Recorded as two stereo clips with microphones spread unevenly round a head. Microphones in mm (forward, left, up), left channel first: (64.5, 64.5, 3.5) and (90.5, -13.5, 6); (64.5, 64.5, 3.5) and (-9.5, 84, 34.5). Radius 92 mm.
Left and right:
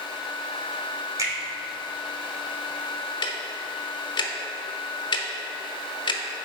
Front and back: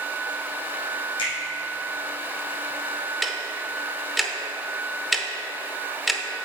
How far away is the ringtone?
I don't hear a ringtone.